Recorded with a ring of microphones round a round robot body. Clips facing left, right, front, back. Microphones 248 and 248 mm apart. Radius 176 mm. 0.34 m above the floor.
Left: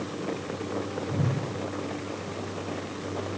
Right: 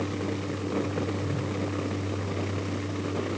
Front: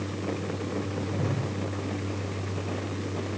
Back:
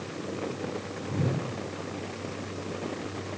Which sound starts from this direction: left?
A whoosh, at 1.1 s.